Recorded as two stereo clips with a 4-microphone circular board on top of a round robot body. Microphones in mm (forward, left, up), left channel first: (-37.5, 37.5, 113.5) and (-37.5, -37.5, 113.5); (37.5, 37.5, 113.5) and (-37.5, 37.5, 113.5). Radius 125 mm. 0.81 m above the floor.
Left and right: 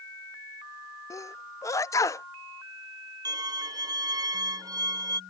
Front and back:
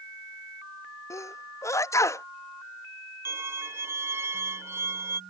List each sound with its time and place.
1.1 s a sneeze: 45° left
3.2 s a violin: 125° right